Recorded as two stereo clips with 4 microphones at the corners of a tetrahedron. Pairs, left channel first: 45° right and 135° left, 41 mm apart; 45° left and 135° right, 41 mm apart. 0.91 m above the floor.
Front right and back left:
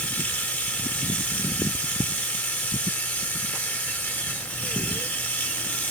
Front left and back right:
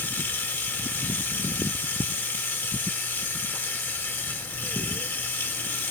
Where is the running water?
5° left, 0.9 m.